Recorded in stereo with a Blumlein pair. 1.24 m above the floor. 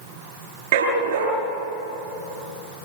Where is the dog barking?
55° right, 7 m.